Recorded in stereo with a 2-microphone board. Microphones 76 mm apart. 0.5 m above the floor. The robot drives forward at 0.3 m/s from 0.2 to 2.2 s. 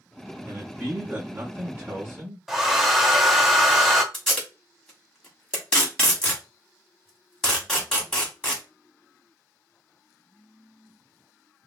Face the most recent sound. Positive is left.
turn(degrees=10)  # may be behind; listen again after turning